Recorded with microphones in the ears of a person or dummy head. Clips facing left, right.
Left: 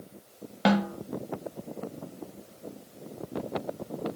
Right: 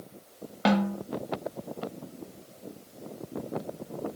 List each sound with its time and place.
0.7 s a snare drum: 5° left (ahead or behind), 1.2 m